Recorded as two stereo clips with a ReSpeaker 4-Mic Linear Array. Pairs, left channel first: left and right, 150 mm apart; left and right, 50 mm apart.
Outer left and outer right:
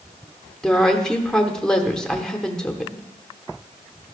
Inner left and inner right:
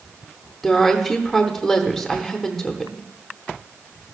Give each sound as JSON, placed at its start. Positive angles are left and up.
{"t": 0.6, "sound": "a woman speaking", "side_deg": 5, "distance_m": 0.8}